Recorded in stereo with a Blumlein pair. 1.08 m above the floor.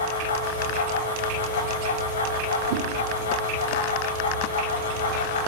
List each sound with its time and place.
0.0 s a fan: 65° left, 0.8 m
2.7 s a whoosh: 45° right, 0.5 m